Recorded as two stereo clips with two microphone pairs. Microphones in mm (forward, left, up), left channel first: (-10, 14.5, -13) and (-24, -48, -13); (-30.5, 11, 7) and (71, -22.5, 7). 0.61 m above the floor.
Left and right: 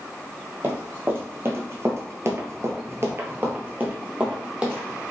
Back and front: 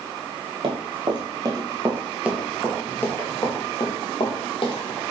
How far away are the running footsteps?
About 1.3 m.